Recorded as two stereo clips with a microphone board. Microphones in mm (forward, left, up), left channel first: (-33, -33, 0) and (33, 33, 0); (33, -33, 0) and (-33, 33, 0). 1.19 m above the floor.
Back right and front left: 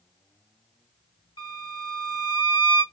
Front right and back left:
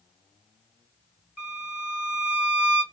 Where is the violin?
155° right, 1.6 m.